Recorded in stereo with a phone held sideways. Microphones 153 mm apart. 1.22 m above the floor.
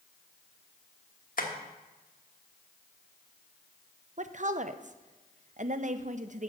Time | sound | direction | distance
1.4 | tapping | 65° left (ahead or behind) | 1.3 m
4.2 | a woman speaking | 55° right (ahead or behind) | 0.6 m